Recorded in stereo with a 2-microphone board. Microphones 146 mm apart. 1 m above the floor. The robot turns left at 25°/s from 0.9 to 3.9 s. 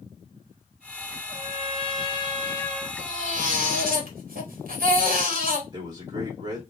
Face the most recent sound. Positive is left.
turn(degrees=-30)  # may be behind; listen again after turning